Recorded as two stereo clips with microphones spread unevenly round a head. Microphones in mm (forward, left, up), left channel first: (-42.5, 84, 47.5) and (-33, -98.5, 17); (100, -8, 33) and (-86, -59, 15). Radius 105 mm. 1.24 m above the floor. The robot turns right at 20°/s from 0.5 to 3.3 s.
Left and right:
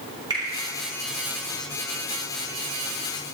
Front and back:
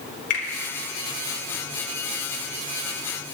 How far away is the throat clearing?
I don't hear throat clearing.